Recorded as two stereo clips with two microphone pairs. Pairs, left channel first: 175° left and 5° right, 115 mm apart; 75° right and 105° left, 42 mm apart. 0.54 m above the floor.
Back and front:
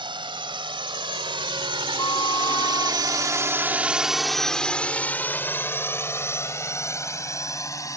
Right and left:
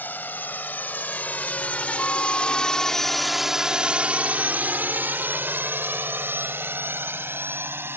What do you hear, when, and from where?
0.0 s a drone: 45° right; by 8.0 s 115° left
2.0 s a flute: 135° right